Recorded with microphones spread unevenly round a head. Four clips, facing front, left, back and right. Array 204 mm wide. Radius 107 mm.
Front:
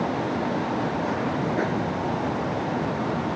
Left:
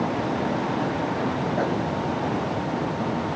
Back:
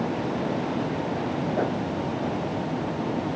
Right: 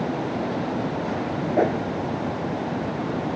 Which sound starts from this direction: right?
A whoosh, at 1.6 s.